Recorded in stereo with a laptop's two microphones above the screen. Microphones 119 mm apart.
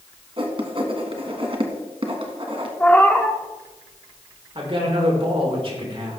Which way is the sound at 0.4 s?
50° right (ahead or behind).